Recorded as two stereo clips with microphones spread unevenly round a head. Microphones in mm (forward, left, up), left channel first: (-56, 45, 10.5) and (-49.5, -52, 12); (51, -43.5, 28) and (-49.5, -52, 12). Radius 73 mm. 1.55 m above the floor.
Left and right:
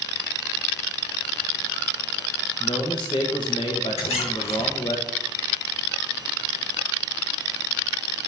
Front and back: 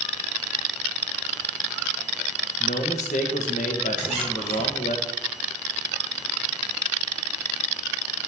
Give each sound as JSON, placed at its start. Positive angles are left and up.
{"t": 2.6, "sound": "a man speaking", "azimuth_deg": 30, "distance_m": 1.2}
{"t": 4.0, "sound": "a squeak", "azimuth_deg": 100, "distance_m": 3.5}